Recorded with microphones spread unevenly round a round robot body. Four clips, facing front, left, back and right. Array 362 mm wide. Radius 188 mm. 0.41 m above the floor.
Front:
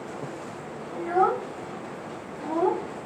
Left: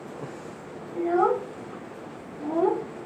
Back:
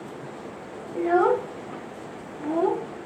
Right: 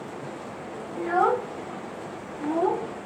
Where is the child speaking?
165° left, 1.2 m; by 3.1 s 60° left, 0.6 m.